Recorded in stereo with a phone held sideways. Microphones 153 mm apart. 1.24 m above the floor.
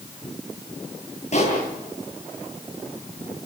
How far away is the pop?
About 10 m.